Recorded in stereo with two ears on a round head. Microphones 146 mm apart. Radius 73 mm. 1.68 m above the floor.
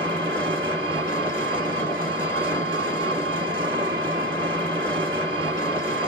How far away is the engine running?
About 1.5 m.